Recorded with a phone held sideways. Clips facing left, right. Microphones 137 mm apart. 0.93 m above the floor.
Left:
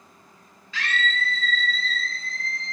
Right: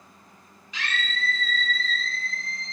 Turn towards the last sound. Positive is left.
turn(degrees=-50)  # may be behind; listen again after turning